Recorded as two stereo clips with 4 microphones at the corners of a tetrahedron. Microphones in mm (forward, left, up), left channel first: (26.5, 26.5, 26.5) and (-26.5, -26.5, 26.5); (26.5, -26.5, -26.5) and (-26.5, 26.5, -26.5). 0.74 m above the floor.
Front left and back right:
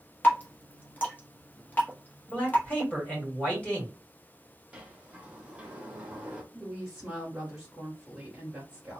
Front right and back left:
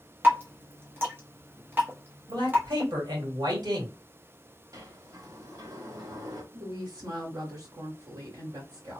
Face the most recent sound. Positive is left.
turn(degrees=150)